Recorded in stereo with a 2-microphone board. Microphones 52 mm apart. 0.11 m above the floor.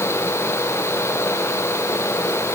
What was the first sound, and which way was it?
Only background noise.